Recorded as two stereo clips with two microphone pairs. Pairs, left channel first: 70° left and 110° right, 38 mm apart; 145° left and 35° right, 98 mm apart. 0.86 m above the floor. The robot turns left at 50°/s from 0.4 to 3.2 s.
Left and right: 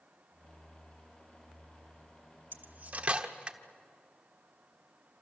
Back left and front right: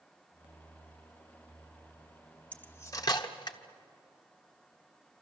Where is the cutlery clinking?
135° right, 1.2 m; by 3.6 s 170° right, 1.2 m.